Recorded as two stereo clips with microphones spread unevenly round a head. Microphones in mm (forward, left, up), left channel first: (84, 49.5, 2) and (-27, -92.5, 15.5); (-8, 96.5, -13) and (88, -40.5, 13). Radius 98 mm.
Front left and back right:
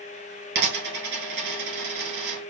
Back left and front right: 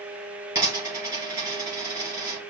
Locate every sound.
0.6 s a dropped coin: 120° right, 2.5 m